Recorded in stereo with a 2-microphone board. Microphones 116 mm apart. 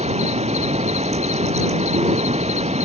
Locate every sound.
0.0 s an insect: 70° right (ahead or behind)